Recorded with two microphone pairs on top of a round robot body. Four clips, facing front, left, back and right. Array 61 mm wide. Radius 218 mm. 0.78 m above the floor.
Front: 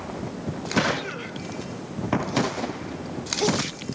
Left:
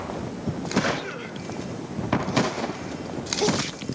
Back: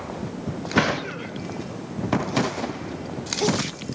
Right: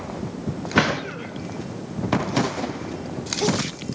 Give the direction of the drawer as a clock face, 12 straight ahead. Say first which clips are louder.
Right 4 dB, back 2 dB; 4 o'clock.